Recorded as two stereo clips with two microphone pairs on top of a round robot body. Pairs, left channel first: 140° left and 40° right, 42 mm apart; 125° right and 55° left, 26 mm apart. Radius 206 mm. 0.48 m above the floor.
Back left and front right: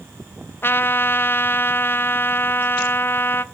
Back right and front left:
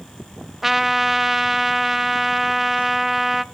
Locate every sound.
0.6 s a trumpet: 135° left, 0.9 m